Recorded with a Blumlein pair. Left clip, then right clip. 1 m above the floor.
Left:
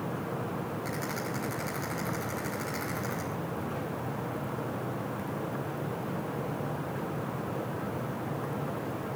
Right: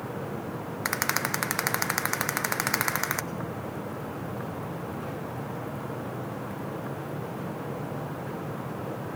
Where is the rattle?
50° right, 0.5 m.